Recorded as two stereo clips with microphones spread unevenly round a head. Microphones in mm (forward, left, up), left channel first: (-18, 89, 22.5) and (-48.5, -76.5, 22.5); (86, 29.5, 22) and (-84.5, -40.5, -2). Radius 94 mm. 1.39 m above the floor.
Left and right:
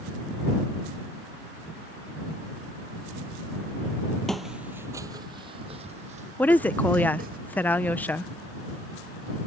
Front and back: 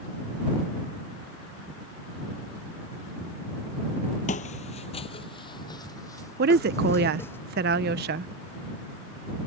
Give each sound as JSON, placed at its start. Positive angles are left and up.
{"t": 4.3, "sound": "footsteps", "azimuth_deg": -10}
{"t": 6.4, "sound": "a woman speaking", "azimuth_deg": 160}